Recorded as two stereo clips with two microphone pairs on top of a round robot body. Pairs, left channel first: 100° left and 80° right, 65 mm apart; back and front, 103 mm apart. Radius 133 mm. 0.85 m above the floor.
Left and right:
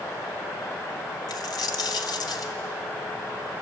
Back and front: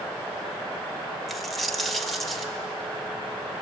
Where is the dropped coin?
90° left, 1.3 m.